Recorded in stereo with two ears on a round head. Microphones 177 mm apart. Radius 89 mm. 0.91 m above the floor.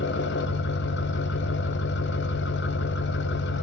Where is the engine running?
60° left (ahead or behind), 0.7 m.